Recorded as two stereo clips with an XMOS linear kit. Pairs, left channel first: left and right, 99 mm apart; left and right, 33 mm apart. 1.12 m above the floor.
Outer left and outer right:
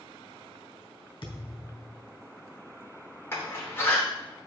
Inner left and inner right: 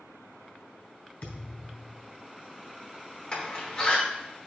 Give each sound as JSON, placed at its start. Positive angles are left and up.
{"t": 1.2, "sound": "a thud", "side_deg": 50, "distance_m": 3.0}
{"t": 3.3, "sound": "a door slam", "side_deg": 25, "distance_m": 3.0}